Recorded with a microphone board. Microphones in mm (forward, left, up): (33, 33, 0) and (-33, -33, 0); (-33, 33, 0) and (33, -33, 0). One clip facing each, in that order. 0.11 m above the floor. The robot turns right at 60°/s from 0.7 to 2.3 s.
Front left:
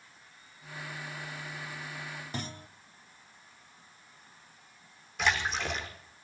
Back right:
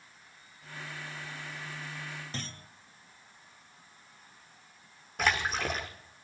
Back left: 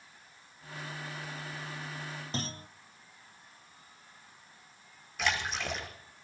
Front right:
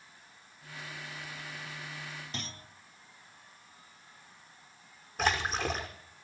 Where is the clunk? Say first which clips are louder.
Front left 3 dB, back left 5 dB; 115° left, 0.6 m.